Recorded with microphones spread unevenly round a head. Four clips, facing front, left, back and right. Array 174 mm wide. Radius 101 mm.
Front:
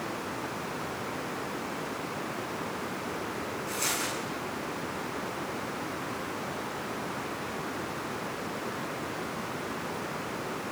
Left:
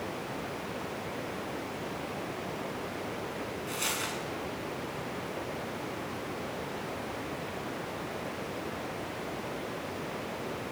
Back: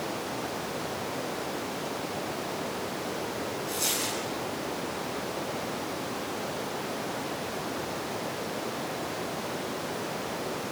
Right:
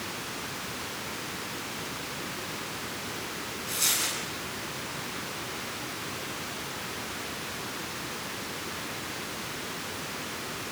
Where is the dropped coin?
20° left, 8.5 m.